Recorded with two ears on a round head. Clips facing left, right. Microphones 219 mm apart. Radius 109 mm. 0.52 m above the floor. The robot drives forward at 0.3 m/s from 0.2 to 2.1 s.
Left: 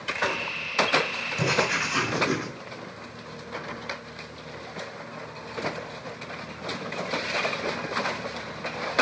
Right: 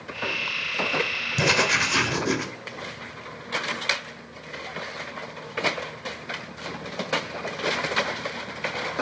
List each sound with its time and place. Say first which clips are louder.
1.4 s writing: right 2 dB; 60° right (ahead or behind), 1.8 m; by 2.5 s 55° right (ahead or behind), 1.8 m